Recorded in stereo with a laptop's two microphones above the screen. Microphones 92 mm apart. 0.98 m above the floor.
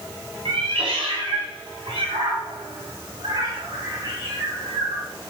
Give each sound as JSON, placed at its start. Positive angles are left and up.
{"t": 0.5, "sound": "a cat meowing", "side_deg": -85, "distance_m": 4.0}